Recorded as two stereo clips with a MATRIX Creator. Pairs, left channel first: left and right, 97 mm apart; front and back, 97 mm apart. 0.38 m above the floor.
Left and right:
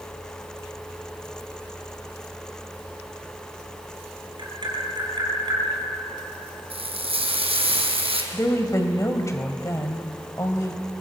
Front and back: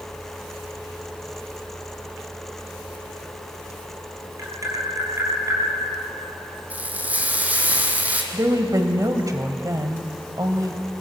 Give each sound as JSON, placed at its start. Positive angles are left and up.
{"t": 4.4, "sound": "tapping", "azimuth_deg": -125, "distance_m": 3.5}
{"t": 6.7, "sound": "frying", "azimuth_deg": -105, "distance_m": 2.5}
{"t": 8.3, "sound": "a woman speaking", "azimuth_deg": 140, "distance_m": 2.0}